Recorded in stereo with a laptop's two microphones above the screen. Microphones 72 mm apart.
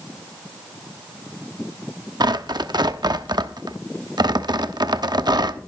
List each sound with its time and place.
2.2 s tearing paper: 75° right (ahead or behind), 0.9 m